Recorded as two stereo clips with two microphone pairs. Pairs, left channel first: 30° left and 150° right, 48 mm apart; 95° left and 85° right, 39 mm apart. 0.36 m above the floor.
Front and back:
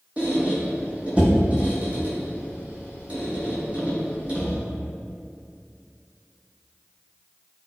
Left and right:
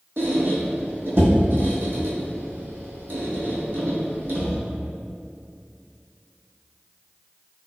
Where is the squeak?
90° right, 0.8 m.